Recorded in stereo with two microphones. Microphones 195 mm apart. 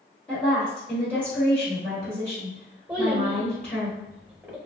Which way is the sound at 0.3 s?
5° left (ahead or behind).